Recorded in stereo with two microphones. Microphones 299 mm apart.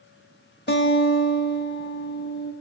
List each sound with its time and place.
0.7 s a guitar: 35° left (ahead or behind), 0.7 m